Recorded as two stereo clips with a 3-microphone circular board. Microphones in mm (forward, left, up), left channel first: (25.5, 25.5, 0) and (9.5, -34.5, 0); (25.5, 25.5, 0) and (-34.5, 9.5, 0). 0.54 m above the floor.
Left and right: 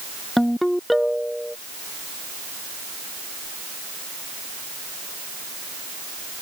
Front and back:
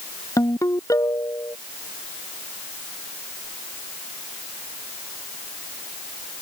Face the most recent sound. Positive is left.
turn(degrees=-15)